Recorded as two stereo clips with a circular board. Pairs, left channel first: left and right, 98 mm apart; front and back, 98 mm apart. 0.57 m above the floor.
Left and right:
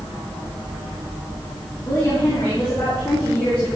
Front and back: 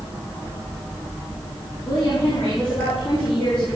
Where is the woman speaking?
25° left, 4.5 m; by 3.6 s 10° left, 6.5 m.